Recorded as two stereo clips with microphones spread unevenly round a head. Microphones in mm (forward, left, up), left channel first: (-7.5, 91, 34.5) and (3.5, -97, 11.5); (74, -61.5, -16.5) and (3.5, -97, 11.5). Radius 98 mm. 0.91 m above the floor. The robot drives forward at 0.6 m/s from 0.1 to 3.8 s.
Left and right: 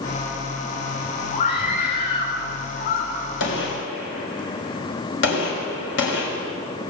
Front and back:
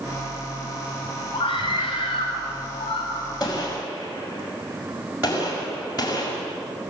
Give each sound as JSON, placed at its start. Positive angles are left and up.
{"t": 1.3, "sound": "a scream", "azimuth_deg": 55, "distance_m": 5.5}
{"t": 3.4, "sound": "a gunshot", "azimuth_deg": 120, "distance_m": 5.5}